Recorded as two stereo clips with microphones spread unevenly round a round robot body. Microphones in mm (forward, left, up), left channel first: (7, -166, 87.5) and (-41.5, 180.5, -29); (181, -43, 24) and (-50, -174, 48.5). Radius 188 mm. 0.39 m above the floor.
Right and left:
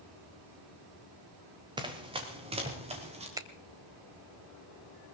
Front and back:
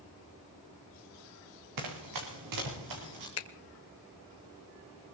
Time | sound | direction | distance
1.8 | running footsteps | straight behind | 3 m
3.4 | a finger snap | 30° left | 1.2 m